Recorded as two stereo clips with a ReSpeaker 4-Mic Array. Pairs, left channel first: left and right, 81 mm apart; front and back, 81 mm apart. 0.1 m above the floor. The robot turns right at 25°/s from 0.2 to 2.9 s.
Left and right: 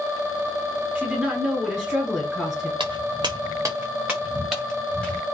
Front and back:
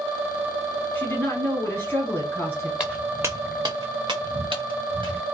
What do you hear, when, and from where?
0.9 s a woman speaking: 35° right, 1.5 m; by 2.7 s 10° left, 1.5 m
2.8 s footsteps: 100° right, 0.7 m; by 5.2 s 170° left, 1.5 m